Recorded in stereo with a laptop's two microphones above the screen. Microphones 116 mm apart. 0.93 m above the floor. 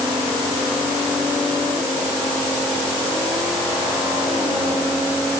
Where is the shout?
No shout in this recording.